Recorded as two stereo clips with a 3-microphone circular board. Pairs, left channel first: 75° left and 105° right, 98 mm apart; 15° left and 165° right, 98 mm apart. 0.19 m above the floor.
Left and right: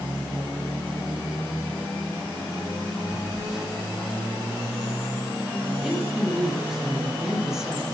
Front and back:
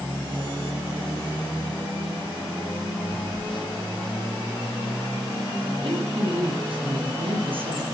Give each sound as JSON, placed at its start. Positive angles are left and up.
{"t": 3.1, "sound": "a phone buzzing", "azimuth_deg": -20, "distance_m": 2.5}
{"t": 5.8, "sound": "a woman speaking", "azimuth_deg": 170, "distance_m": 6.0}